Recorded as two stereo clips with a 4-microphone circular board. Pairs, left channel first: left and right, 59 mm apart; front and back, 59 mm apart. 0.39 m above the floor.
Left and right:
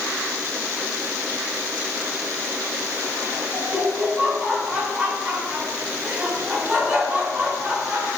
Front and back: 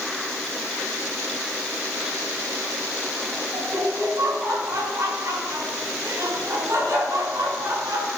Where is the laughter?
155° right, 4 m.